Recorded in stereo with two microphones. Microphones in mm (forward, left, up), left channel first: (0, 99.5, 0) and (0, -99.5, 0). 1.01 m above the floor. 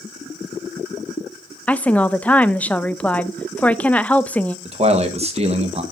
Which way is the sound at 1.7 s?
5° left (ahead or behind).